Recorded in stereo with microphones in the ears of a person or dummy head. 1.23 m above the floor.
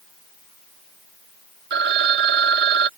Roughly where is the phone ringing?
Right.